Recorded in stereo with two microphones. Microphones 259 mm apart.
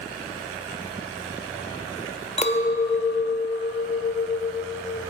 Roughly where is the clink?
Left.